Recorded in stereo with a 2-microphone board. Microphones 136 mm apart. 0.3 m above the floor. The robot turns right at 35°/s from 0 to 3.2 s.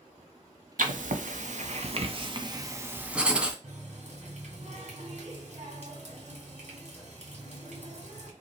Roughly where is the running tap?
Right.